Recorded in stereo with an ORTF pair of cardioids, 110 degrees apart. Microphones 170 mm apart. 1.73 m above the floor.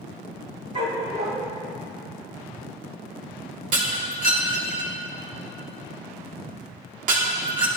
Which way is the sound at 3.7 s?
50° right.